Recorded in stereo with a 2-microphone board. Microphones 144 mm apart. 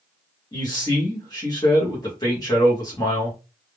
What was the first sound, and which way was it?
A man speaking, 25° left (ahead or behind).